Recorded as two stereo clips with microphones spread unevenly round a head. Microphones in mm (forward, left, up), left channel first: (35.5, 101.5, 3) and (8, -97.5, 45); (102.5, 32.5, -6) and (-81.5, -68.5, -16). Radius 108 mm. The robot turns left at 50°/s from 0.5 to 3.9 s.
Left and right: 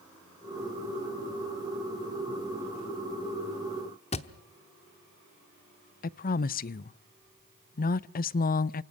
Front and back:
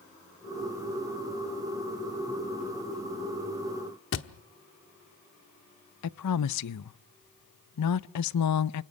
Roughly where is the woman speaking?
Ahead left.